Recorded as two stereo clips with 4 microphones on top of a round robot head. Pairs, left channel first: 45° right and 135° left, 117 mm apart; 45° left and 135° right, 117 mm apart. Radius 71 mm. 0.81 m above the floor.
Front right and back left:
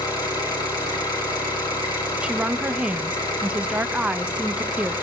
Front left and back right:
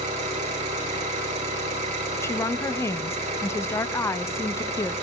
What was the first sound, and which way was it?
An engine running, 95° right.